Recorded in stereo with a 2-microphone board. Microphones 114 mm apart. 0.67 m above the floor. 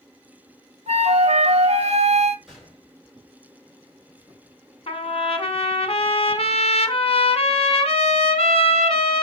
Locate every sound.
0.9 s a flute: 75° right (ahead or behind), 0.7 m
2.5 s a gunshot: centre (ahead or behind), 3.5 m
4.9 s a trumpet: 55° left (ahead or behind), 0.8 m